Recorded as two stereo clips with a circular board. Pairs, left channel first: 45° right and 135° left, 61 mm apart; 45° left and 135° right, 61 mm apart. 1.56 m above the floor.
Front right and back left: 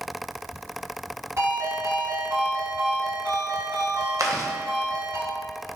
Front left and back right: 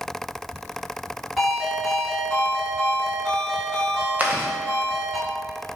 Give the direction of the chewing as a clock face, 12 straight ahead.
7 o'clock.